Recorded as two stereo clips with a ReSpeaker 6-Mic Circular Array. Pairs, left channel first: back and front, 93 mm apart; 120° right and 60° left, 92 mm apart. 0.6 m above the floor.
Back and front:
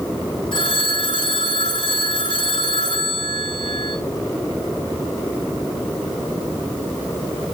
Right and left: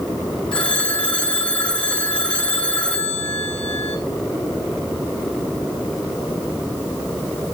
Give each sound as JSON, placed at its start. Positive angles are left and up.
{"t": 0.5, "sound": "a phone ringing", "azimuth_deg": 165, "distance_m": 2.5}